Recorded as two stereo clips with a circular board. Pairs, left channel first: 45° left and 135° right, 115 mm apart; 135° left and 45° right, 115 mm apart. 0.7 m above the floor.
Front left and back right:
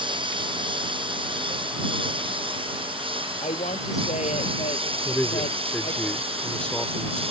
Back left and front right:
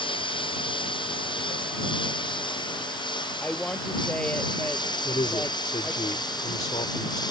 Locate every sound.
0.0 s a lawn mower: straight behind; by 7.3 s 170° right
3.4 s a woman speaking: 55° left
5.0 s a man speaking: 125° left